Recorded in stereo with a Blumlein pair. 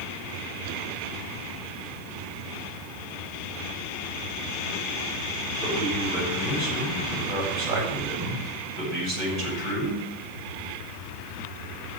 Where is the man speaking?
35° right, 8 m.